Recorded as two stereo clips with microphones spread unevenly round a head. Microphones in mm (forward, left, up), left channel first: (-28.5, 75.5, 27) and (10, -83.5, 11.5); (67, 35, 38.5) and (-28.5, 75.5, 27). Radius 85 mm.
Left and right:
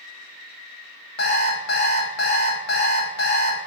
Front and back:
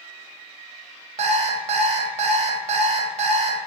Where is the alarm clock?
135° left, 1.0 m.